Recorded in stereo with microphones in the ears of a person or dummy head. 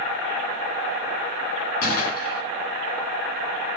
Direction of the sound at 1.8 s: 55° left (ahead or behind).